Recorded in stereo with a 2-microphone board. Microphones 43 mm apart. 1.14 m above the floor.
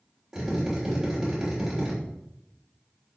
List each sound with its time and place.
0.3 s a drill: 15° right (ahead or behind), 4 m